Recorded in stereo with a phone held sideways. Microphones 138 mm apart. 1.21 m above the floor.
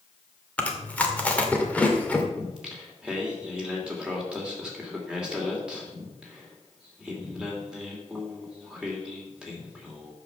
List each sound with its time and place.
0.6 s chewing: 10° left (ahead or behind), 1.9 m
2.4 s singing: 5° right (ahead or behind), 3 m